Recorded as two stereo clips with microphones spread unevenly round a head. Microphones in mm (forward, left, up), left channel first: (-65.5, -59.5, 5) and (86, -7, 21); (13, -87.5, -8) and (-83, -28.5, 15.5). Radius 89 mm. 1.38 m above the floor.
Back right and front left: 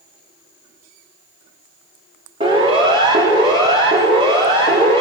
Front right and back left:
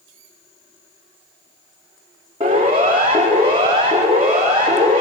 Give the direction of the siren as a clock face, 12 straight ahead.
9 o'clock.